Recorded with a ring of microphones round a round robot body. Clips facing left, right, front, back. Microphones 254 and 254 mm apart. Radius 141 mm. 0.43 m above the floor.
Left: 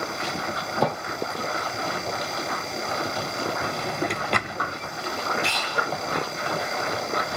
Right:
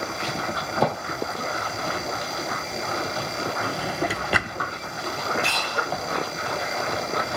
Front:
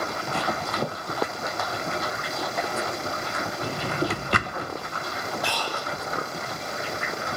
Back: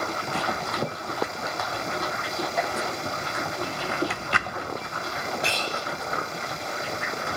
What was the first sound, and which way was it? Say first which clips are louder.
A drawer: right 1 dB, front 2 dB; 10° right.